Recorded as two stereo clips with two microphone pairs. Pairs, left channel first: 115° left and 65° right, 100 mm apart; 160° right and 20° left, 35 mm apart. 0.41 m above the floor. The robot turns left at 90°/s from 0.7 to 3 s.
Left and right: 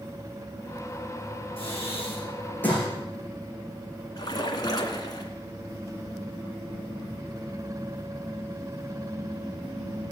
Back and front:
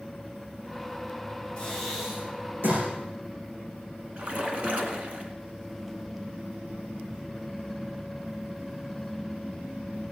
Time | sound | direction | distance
1.6 | breathing | 135° left | 6 m
4.2 | a splash | 65° left | 2.0 m